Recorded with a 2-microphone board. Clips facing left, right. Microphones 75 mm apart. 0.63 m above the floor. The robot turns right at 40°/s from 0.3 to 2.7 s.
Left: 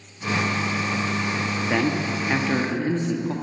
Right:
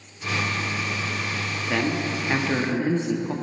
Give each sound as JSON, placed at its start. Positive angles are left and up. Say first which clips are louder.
{"t": 1.6, "sound": "a man speaking", "louder": "left 1 dB", "azimuth_deg": 145, "distance_m": 0.8}